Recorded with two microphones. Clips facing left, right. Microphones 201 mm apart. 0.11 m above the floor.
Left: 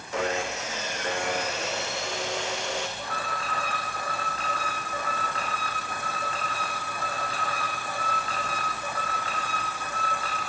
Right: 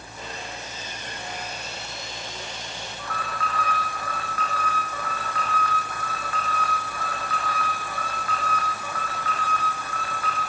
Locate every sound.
0.1 s sawing: 80° left, 2.5 m
3.0 s an alarm: 25° left (ahead or behind), 6.5 m